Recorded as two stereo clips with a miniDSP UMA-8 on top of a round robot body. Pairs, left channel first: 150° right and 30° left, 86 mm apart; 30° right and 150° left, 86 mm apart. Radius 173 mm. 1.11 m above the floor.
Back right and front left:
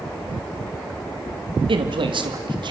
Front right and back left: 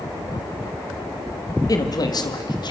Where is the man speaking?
15° left, 2.5 m; by 2.7 s 5° left, 3 m.